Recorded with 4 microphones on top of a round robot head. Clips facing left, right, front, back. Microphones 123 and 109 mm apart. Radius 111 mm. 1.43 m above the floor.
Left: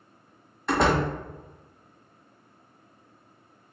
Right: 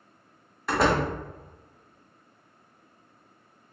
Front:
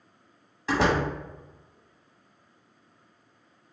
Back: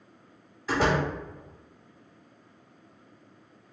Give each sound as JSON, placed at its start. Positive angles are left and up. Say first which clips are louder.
{"t": 0.7, "sound": "a door slam", "louder": "left 1 dB, front 1 dB", "azimuth_deg": -5, "distance_m": 1.0}